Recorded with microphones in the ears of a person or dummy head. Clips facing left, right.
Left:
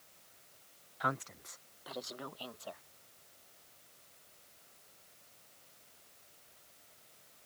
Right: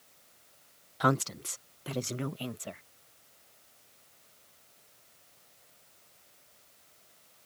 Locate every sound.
1.0 s a woman speaking: 50° right (ahead or behind); by 2.8 s 30° right (ahead or behind)